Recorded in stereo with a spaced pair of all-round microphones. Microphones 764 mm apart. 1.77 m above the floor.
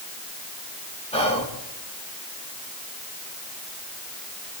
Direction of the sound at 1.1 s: 10° left (ahead or behind).